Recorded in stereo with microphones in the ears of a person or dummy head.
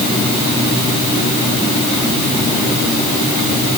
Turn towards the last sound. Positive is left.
No sound to turn to.